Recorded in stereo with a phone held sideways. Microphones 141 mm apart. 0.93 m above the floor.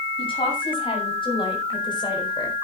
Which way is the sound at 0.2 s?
40° left (ahead or behind).